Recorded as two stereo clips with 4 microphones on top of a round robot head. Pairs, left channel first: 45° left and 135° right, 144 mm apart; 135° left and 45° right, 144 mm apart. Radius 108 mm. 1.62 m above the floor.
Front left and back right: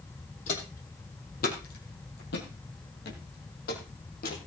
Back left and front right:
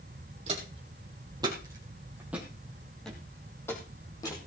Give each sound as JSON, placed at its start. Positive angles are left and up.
{"t": 0.5, "sound": "footsteps", "azimuth_deg": 5, "distance_m": 4.0}